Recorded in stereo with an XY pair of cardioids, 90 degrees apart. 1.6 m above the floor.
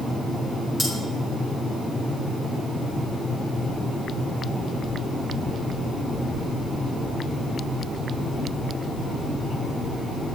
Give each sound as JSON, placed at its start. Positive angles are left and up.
{"t": 0.8, "sound": "cutlery clinking", "azimuth_deg": 25, "distance_m": 3.5}